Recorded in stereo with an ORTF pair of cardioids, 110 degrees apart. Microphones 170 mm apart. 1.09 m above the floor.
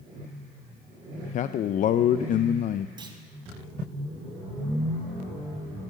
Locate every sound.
1.3 s a man speaking: 55° left, 0.5 m
3.0 s a clunk: 25° right, 2.5 m